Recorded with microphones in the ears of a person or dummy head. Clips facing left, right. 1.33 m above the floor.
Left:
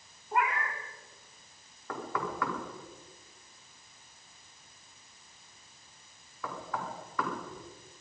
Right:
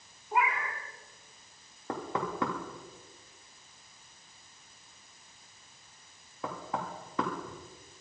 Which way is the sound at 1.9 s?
30° right (ahead or behind).